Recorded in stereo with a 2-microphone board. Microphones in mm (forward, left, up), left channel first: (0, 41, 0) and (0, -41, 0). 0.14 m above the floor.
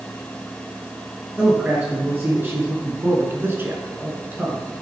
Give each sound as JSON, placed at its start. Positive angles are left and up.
{"t": 1.4, "sound": "a man speaking", "side_deg": -20, "distance_m": 2.5}